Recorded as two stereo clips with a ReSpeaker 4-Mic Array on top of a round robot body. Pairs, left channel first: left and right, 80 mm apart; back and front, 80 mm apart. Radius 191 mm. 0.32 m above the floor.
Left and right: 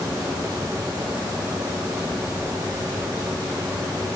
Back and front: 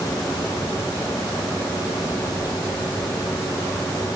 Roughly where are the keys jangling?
No keys jangling in this recording.